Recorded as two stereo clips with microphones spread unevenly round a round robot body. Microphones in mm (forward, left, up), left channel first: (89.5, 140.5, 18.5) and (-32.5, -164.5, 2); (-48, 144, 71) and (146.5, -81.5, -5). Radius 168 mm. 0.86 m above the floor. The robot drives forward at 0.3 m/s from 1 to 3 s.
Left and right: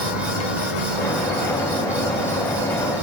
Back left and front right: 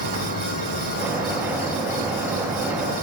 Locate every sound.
0.0 s an insect: 70° left, 5.5 m; by 3.0 s 75° left, 5.5 m